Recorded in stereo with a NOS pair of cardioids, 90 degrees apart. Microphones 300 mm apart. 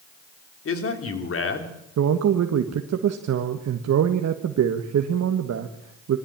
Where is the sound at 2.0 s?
55° right, 1.6 m.